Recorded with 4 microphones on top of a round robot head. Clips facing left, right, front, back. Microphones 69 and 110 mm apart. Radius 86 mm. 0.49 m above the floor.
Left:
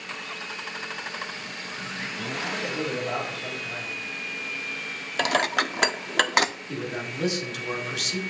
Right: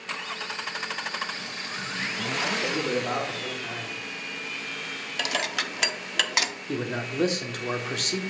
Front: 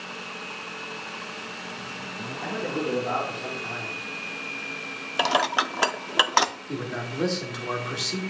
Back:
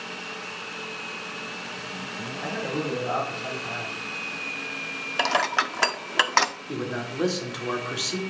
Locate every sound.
2.4 s a man speaking: 75° right, 4 m
5.2 s dishes clattering: 75° left, 0.5 m
6.7 s a man speaking: 95° right, 1.6 m